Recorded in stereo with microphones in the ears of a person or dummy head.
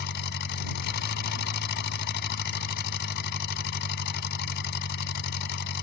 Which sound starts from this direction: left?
An engine running, at 0.0 s.